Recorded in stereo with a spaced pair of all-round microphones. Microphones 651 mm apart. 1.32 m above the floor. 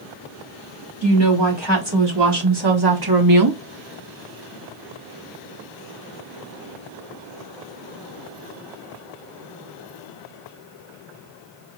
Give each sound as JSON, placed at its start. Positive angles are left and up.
{"t": 1.0, "sound": "a woman speaking", "side_deg": -40, "distance_m": 2.5}